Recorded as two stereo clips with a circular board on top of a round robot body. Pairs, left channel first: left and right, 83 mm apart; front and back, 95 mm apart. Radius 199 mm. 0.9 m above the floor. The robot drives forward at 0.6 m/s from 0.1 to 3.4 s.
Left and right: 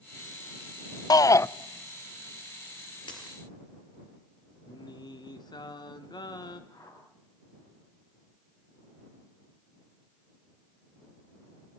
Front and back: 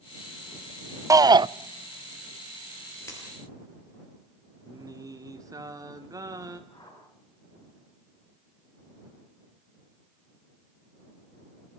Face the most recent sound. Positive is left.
turn(degrees=50)